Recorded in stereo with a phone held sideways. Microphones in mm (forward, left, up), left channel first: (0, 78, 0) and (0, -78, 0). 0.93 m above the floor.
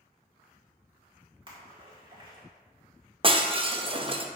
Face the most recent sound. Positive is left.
turn(degrees=-35)  # may be behind; listen again after turning